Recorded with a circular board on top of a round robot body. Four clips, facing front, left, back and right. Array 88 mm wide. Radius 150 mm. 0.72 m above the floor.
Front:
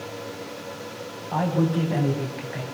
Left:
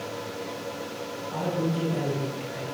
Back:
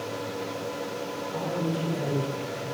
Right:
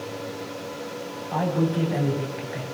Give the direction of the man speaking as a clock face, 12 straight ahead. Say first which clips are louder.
Right 4 dB, front 7 dB; 1 o'clock.